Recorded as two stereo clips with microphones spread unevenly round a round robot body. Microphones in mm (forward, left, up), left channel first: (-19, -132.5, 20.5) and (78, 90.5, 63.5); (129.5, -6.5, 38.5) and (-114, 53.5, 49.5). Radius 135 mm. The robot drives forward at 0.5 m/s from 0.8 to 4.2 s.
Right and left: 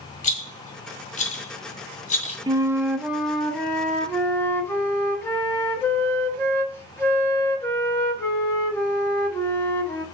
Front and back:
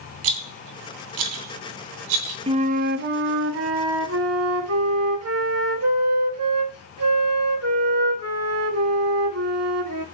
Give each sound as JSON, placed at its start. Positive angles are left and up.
{"t": 0.2, "sound": "a rattle", "azimuth_deg": 180, "distance_m": 1.5}
{"t": 2.5, "sound": "a flute", "azimuth_deg": 145, "distance_m": 0.7}